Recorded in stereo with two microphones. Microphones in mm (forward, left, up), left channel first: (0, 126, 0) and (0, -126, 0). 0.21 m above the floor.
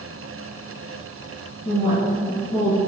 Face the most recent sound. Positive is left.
turn(degrees=25)  # may be behind; listen again after turning